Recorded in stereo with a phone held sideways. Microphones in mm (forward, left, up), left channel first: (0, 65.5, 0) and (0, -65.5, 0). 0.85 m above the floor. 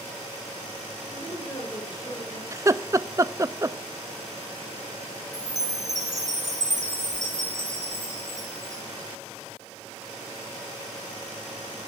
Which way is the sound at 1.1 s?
35° left (ahead or behind).